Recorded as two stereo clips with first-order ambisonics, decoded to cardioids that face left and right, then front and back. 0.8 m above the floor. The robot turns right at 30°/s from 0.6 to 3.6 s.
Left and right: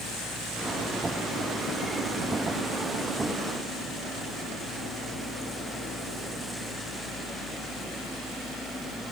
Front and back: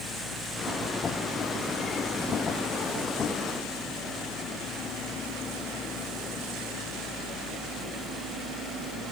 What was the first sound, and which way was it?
Only background noise.